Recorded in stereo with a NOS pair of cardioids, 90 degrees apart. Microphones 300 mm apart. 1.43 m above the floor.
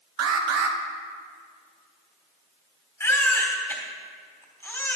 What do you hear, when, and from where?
0.2 s an alarm: 60° right, 1.0 m
3.0 s a baby crying: 10° left, 3 m